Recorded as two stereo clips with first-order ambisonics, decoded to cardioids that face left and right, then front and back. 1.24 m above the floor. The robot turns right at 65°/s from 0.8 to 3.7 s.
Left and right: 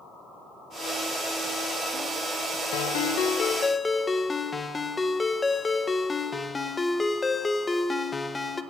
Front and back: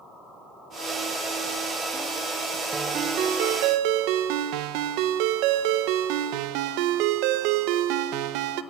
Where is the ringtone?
105° left, 0.6 m; by 8.6 s 170° left, 0.6 m.